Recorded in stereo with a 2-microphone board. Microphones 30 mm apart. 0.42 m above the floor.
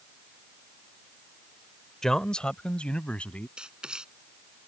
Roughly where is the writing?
Right.